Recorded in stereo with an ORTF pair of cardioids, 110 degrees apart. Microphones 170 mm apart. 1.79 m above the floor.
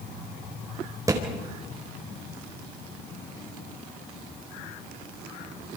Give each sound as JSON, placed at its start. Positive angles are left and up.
{"t": 1.1, "sound": "a thud", "azimuth_deg": -20, "distance_m": 4.0}